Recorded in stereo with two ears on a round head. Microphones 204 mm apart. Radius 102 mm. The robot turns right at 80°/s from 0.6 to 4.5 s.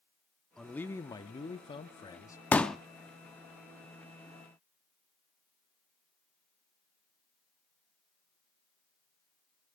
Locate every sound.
0.6 s a man speaking: centre (ahead or behind), 0.7 m; by 2.4 s 10° left (ahead or behind), 0.7 m
2.5 s a pop: 5° left (ahead or behind), 0.6 m; by 2.8 s centre (ahead or behind), 0.6 m